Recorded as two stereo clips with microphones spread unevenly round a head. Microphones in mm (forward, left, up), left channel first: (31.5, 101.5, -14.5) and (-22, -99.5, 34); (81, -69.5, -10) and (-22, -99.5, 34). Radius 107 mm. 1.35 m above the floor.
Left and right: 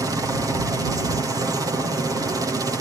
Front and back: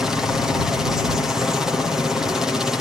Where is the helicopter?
25° right.